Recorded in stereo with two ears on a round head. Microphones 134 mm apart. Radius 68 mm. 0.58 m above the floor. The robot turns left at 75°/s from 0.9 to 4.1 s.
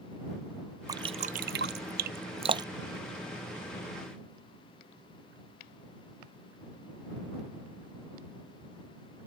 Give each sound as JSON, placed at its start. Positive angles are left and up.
{"t": 0.9, "sound": "dripping", "side_deg": -20}